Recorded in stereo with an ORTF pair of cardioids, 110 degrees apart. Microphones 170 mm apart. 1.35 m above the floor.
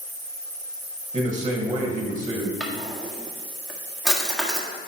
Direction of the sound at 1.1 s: 25° right.